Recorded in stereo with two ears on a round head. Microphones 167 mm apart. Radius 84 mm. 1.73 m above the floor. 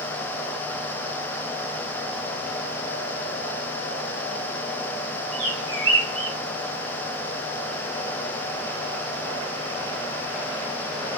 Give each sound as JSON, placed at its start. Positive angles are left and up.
{"t": 5.3, "sound": "a bird", "side_deg": -30, "distance_m": 1.4}